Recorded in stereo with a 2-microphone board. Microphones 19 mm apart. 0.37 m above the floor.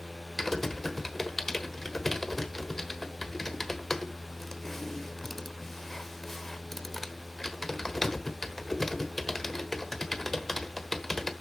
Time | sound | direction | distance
0.4 | typing on a keyboard | 15° left (ahead or behind) | 1.2 m